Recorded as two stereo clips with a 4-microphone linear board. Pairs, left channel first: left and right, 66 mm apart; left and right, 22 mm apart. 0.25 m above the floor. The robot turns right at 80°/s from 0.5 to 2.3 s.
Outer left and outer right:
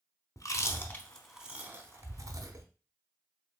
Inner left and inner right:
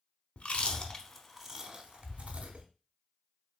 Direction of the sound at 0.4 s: 55° left (ahead or behind).